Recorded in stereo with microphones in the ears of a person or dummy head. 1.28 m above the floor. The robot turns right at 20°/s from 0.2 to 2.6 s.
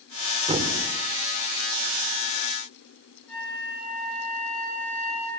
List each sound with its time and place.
0.5 s a thud: 35° right (ahead or behind), 1.9 m; by 0.8 s 40° right (ahead or behind), 1.9 m
3.3 s a flute: 10° left (ahead or behind), 8.5 m